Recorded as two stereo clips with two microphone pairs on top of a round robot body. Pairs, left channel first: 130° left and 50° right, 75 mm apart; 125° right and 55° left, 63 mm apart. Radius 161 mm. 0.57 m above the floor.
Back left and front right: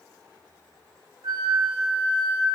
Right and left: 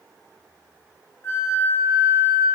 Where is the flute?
70° right, 0.7 m.